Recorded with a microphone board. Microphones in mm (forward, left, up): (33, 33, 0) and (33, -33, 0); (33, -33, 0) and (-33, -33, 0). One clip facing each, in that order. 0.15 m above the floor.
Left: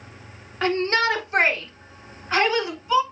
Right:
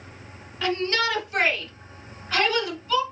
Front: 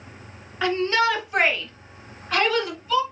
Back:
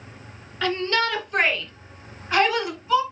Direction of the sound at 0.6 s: 65° left.